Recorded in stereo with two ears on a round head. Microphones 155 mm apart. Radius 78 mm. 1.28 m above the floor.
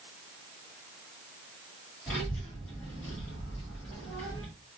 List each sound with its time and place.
2.1 s a child speaking: 15° left (ahead or behind), 1.9 m